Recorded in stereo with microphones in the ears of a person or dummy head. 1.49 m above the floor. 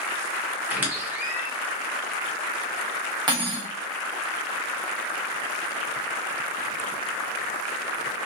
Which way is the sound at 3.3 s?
25° right (ahead or behind).